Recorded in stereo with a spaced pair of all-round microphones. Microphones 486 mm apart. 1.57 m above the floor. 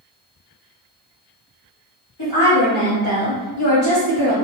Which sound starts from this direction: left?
A woman speaking, at 2.2 s.